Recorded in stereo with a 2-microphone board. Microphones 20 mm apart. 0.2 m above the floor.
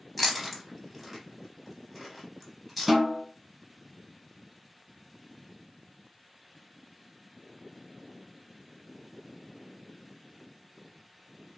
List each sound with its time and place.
0.2 s chewing: 5° right (ahead or behind), 0.7 m
2.9 s a snare drum: 15° right (ahead or behind), 1.3 m